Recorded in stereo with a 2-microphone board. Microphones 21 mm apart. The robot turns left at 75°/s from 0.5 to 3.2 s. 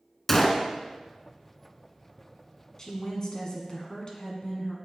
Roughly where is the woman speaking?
Behind left.